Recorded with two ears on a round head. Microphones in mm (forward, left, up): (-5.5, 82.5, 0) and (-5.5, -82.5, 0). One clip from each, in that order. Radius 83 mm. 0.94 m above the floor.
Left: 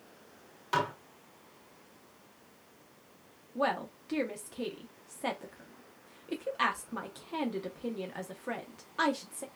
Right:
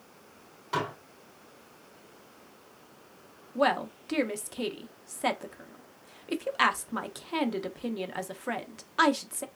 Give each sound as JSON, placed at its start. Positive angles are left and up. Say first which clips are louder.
{"t": 0.7, "sound": "dishes clattering", "louder": "left 1 dB", "side_deg": 35, "distance_m": 1.6}
{"t": 3.5, "sound": "a woman speaking", "louder": "right 5 dB", "side_deg": -25, "distance_m": 0.6}